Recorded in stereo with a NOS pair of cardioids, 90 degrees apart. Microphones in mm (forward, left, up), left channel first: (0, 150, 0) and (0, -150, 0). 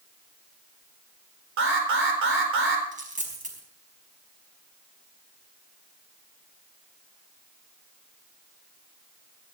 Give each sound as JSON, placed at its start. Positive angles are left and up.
{"t": 1.6, "sound": "an alarm", "azimuth_deg": -45, "distance_m": 4.0}
{"t": 2.9, "sound": "a dropped coin", "azimuth_deg": -25, "distance_m": 5.0}